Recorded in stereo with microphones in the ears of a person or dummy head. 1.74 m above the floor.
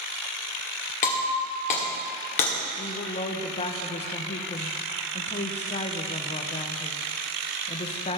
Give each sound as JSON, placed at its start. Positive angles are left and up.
{"t": 1.0, "sound": "breaking glass", "side_deg": 40, "distance_m": 1.6}
{"t": 2.8, "sound": "a woman speaking", "side_deg": 30, "distance_m": 0.8}